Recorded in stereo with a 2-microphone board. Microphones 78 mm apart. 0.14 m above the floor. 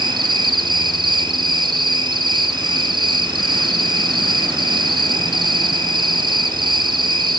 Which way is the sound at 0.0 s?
75° right (ahead or behind).